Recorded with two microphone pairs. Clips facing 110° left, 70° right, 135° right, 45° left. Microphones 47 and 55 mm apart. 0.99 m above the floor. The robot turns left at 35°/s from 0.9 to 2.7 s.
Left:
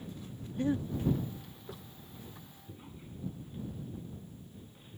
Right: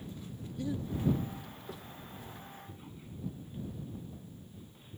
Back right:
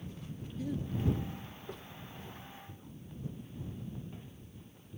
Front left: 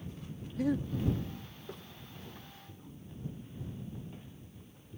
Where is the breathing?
60° left; by 1.2 s 50° left.